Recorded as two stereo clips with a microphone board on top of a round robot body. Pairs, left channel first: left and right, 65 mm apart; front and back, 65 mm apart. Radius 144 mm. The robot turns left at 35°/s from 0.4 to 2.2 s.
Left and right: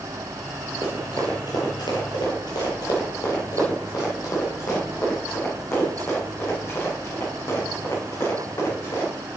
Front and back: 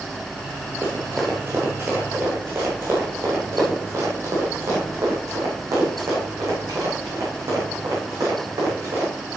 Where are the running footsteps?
115° left, 1.2 m; by 9.1 s 140° left, 5.5 m.